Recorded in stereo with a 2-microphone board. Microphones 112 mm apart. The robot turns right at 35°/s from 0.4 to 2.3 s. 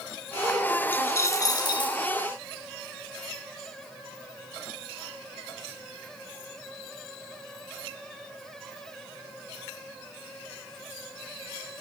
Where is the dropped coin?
20° left, 0.9 m; by 2.0 s 60° left, 0.9 m.